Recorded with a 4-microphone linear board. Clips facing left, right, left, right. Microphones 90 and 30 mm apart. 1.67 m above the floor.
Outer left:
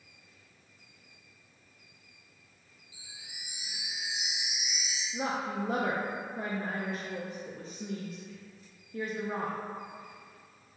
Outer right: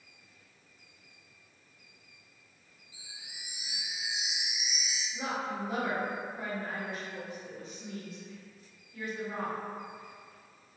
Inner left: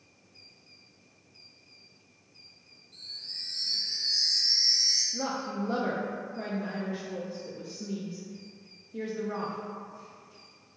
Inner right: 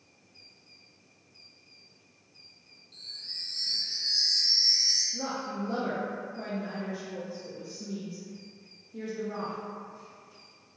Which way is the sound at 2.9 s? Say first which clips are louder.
Even, even; 50° right (ahead or behind).